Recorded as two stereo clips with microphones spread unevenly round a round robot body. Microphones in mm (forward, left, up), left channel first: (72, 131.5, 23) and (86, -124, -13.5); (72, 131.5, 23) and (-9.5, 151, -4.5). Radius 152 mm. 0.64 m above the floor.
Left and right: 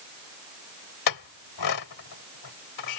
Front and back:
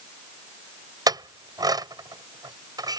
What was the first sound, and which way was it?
A clink, 125° left.